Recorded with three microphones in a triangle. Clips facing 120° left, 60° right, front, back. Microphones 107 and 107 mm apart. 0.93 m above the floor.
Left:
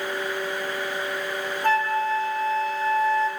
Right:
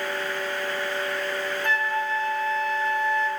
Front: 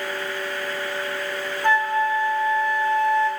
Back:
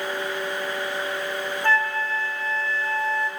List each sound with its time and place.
1.6 s a flute: 70° left, 1.9 m